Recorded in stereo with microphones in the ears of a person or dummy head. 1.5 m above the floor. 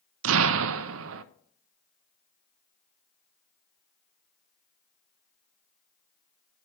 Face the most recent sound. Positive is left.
turn(degrees=-75)  # may be behind; listen again after turning